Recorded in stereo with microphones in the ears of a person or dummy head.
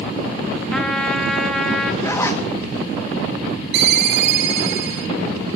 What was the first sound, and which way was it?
A trumpet, 5° right (ahead or behind).